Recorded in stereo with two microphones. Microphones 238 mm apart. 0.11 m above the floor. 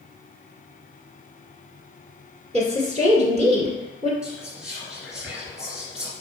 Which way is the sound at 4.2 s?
5° right (ahead or behind).